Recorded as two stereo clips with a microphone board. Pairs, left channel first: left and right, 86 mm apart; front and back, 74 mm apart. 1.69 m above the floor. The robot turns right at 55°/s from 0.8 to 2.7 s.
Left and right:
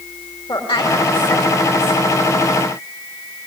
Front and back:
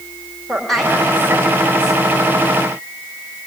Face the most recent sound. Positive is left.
turn(degrees=-170)